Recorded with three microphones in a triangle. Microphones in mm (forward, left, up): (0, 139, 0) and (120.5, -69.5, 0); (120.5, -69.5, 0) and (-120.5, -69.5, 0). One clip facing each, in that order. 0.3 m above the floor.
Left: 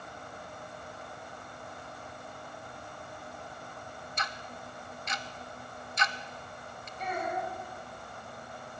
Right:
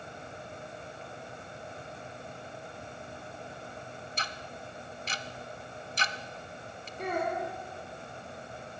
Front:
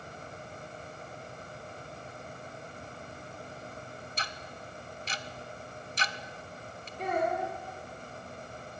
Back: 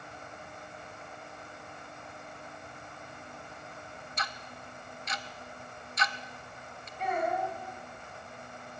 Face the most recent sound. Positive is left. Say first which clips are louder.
# right 3 dB, front 1 dB
turn(degrees=-40)